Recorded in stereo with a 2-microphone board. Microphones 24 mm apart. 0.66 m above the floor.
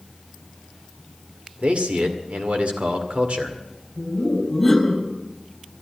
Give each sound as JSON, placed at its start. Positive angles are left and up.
{"t": 1.6, "sound": "a man speaking", "side_deg": -65, "distance_m": 2.0}
{"t": 4.0, "sound": "laughter", "side_deg": -5, "distance_m": 3.5}